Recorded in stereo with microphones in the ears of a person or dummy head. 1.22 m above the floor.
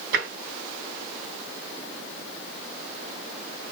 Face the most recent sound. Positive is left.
turn(degrees=-60)  # may be behind; listen again after turning